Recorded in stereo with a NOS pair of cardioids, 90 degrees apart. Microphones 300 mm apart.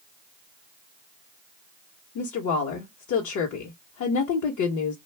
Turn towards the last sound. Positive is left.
turn(degrees=70)